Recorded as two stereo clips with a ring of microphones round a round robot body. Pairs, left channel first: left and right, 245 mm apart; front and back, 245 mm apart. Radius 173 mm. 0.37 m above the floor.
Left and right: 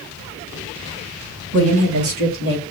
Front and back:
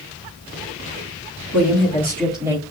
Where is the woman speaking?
70° right, 2 m; by 2.6 s 110° right, 1.1 m.